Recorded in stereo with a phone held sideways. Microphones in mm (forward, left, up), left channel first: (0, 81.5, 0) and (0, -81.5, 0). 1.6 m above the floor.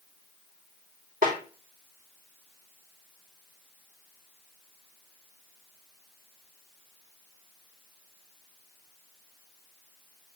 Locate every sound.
1.2 s a snare drum: 60° right (ahead or behind), 2.5 m